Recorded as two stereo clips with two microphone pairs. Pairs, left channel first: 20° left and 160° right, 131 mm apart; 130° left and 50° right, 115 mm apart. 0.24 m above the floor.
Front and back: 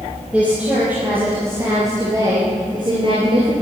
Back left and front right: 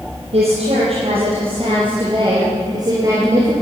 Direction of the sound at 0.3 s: 75° right.